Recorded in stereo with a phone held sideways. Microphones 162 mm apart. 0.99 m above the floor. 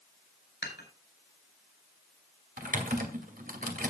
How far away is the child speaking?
No child speaking in this recording.